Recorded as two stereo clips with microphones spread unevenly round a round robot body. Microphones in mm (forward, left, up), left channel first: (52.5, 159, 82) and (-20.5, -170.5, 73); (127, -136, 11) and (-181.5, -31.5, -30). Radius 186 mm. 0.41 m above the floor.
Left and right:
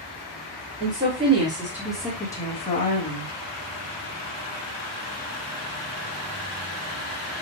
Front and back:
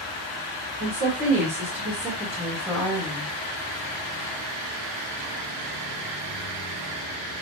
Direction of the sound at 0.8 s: 160° right.